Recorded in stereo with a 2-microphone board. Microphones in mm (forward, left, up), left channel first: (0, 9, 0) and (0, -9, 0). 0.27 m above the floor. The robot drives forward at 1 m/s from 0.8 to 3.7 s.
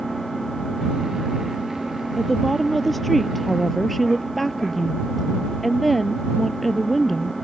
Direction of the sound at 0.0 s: 15° left (ahead or behind).